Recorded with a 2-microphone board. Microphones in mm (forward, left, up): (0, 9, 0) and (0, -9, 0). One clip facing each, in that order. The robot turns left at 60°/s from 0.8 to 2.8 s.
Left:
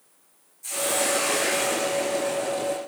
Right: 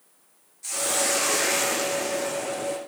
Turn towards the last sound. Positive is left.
turn(degrees=-150)